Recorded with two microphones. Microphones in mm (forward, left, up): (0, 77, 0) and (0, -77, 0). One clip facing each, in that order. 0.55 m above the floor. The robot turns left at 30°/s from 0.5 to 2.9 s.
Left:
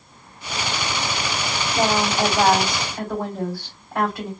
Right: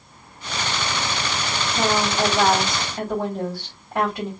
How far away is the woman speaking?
About 2.5 m.